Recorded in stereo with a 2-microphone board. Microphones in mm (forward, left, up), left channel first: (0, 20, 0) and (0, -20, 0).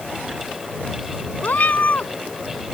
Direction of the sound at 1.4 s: 40° left (ahead or behind).